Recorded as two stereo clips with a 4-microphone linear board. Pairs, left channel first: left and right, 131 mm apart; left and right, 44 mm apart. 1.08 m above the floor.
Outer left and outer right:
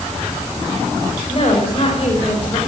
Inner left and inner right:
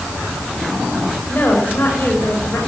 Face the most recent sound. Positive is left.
turn(degrees=45)  # may be behind; listen again after turning